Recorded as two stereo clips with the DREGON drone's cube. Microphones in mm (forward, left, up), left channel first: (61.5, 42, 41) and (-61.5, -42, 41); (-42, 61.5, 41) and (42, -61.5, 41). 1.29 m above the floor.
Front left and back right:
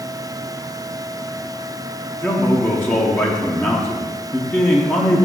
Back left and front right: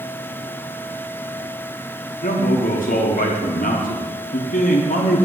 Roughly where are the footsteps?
I don't hear footsteps.